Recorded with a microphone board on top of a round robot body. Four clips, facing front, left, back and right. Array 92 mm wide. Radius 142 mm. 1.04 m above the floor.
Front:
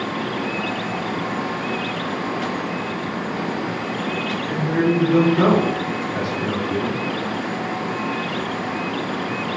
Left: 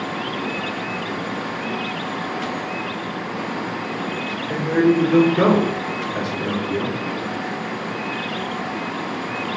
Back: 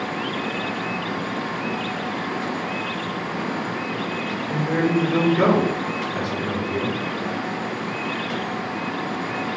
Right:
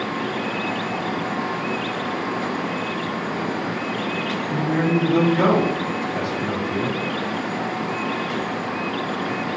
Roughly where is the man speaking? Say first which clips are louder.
Left 5 dB, front 2 dB; left.